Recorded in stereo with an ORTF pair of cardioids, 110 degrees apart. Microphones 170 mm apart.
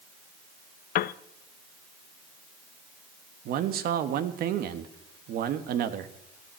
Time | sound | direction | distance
0.9 | a piano | 60° left | 0.5 m
3.5 | a man speaking | 65° right | 1.4 m